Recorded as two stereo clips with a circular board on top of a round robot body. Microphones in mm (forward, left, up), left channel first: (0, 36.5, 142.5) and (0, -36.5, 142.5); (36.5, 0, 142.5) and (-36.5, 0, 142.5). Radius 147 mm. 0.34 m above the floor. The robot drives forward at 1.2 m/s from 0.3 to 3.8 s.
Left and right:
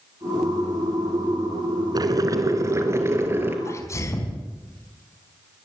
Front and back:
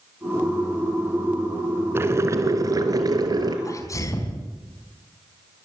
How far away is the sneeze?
About 4.5 m.